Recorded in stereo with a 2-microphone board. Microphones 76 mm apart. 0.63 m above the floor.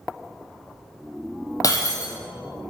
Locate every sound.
1.6 s breaking glass: 45° left (ahead or behind), 2.5 m